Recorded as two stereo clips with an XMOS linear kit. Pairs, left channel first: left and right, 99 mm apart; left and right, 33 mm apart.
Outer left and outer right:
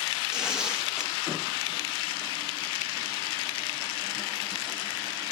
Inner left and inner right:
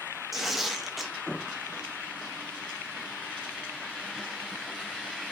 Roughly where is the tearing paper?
Centre.